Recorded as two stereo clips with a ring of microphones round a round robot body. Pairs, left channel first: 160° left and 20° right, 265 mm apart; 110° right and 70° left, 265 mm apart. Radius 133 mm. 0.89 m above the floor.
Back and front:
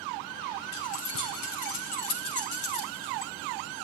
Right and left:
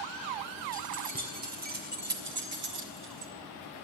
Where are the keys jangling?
130° left, 3.5 m; by 3.3 s 115° left, 2.5 m.